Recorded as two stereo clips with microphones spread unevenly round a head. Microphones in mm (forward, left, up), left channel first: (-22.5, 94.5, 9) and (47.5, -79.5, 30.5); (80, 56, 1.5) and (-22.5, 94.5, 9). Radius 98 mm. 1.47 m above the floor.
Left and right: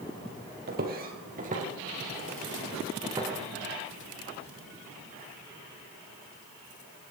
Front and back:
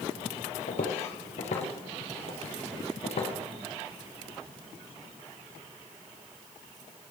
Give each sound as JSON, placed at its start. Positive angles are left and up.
{"t": 0.7, "sound": "footsteps", "azimuth_deg": -45, "distance_m": 3.0}